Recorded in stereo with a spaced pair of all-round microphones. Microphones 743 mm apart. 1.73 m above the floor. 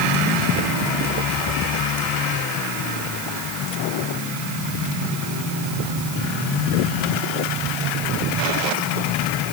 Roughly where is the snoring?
No snoring in this recording.